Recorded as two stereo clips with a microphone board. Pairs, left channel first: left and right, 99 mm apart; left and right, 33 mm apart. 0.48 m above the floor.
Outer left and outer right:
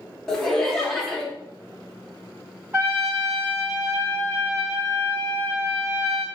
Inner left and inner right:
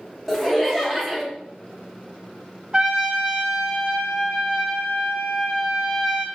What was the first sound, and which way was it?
Laughter, 5° left (ahead or behind).